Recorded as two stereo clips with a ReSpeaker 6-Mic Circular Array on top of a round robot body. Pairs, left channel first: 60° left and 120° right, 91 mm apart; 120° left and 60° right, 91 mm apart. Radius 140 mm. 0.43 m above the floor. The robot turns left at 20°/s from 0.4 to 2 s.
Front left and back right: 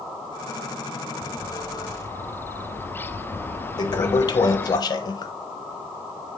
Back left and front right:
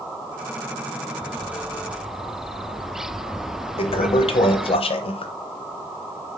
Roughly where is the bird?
Ahead left.